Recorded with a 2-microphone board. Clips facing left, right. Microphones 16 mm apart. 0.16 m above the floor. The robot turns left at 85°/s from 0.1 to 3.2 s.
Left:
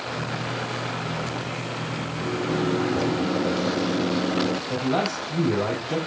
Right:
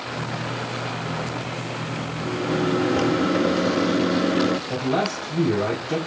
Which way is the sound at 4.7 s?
Centre (ahead or behind).